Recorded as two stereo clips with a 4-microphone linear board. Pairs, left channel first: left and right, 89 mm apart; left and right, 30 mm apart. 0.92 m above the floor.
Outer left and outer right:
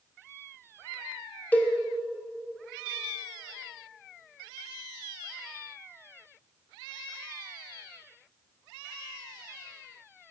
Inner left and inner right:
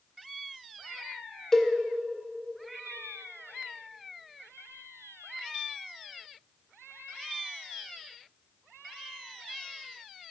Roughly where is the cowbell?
Centre.